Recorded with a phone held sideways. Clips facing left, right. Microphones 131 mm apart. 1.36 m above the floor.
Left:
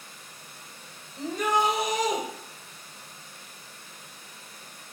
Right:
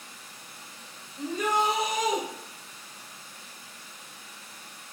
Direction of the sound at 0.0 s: 50° left (ahead or behind).